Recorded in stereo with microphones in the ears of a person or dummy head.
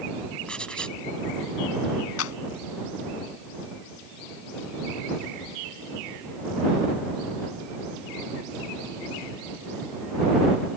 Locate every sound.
0.5 s writing: centre (ahead or behind)
2.2 s a clap: 80° left